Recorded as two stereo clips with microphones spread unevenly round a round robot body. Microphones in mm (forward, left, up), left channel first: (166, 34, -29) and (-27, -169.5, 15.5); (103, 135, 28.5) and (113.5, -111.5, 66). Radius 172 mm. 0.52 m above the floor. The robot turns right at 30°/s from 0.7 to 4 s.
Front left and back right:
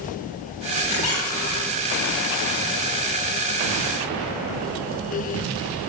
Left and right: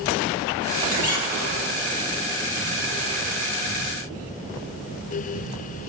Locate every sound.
0.9 s a squeak: 65° left, 9.5 m; by 1.9 s 90° left, 9.5 m